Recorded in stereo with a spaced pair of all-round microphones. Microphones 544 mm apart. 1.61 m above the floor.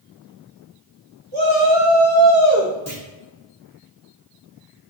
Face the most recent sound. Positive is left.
turn(degrees=-30)  # may be behind; listen again after turning